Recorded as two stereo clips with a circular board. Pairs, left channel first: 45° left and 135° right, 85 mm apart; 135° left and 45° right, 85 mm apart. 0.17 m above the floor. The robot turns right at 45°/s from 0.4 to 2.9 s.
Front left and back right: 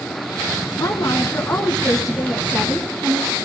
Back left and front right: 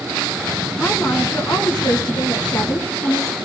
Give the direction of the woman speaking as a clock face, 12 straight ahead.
9 o'clock.